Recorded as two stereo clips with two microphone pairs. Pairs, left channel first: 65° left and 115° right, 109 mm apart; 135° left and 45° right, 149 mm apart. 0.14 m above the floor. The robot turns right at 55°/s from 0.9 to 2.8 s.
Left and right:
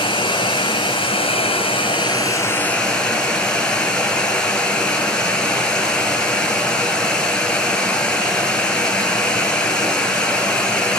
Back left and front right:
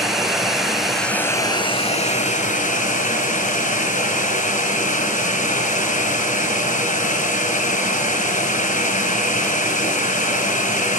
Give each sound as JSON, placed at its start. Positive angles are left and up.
{"t": 0.0, "sound": "running water", "azimuth_deg": 40, "distance_m": 1.3}